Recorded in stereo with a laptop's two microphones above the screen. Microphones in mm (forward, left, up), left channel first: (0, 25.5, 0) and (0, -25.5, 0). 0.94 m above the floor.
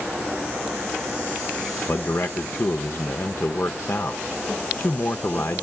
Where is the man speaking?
55° left (ahead or behind), 0.7 m.